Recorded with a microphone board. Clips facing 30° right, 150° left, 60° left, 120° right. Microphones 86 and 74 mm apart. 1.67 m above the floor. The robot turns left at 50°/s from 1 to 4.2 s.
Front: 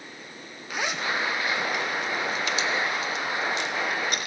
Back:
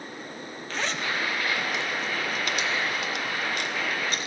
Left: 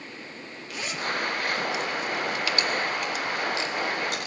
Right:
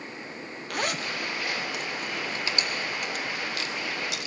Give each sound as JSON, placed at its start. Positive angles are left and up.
{"t": 0.7, "sound": "a zipper", "azimuth_deg": -105, "distance_m": 0.6}